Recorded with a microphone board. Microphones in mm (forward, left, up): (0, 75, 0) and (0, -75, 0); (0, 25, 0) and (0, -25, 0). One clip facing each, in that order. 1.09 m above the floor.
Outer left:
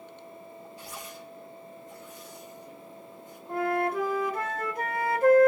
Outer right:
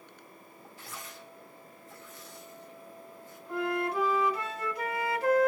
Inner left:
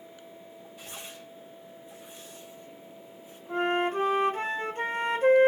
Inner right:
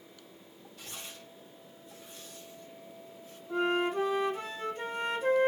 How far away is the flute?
About 1.2 m.